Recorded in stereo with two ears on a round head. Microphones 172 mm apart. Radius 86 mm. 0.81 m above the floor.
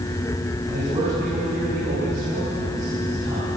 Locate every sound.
0.7 s a man speaking: 25° right (ahead or behind), 9 m